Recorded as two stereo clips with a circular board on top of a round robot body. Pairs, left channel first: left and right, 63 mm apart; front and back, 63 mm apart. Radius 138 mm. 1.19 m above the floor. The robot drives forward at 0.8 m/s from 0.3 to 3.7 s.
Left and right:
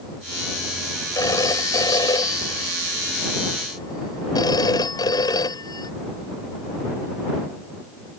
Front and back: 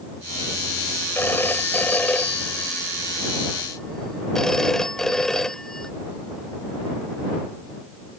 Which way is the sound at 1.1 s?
60° left.